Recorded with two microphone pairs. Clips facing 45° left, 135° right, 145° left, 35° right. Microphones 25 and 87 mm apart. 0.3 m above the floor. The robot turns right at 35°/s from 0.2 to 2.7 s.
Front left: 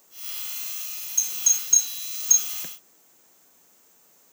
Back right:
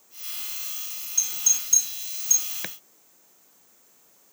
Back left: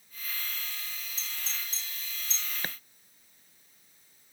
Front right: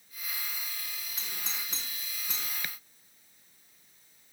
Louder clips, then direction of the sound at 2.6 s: Back right 6 dB, back left 5 dB; 165° right.